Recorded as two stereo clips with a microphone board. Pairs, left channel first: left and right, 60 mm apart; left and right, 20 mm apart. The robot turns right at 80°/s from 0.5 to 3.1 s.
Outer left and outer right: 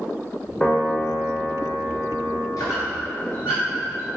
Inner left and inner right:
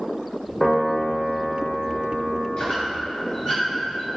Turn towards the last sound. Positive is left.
turn(degrees=30)  # may be behind; listen again after turning